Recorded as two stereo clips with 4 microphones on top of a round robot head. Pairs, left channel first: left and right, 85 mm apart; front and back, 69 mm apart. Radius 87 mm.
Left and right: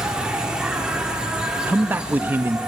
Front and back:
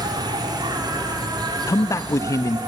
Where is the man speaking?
25° right, 0.6 m.